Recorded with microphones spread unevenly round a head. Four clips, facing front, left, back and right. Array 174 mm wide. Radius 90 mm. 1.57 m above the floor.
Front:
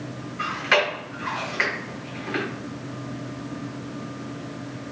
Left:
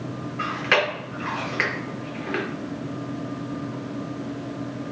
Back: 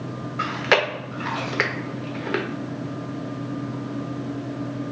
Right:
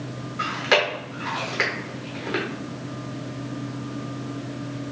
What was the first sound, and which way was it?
Chewing, 165° right.